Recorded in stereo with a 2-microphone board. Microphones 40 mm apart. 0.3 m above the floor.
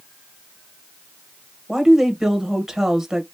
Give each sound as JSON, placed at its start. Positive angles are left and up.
{"t": 1.7, "sound": "a woman speaking", "side_deg": -10, "distance_m": 1.2}